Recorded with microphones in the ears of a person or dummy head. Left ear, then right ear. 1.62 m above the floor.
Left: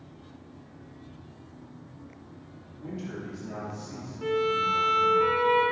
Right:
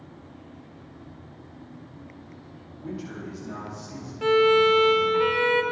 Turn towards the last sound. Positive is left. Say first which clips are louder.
# right 8 dB
turn(degrees=-50)  # may be behind; listen again after turning